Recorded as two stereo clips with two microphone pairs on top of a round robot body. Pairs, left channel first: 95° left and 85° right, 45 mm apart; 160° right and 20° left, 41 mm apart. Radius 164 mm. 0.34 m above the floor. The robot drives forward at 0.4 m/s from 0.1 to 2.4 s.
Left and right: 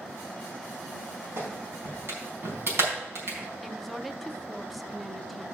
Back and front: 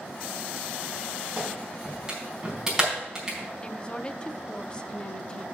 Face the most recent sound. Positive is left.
turn(degrees=170)